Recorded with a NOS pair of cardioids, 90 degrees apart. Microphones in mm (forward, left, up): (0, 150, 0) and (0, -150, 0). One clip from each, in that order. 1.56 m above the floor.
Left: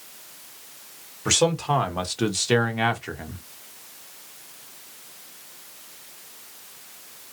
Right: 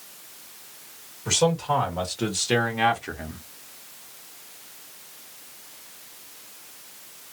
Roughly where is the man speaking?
Ahead left.